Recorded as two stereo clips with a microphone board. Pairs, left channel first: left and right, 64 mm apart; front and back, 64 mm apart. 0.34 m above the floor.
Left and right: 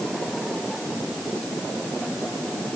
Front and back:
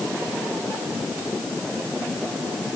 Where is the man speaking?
I don't hear a man speaking.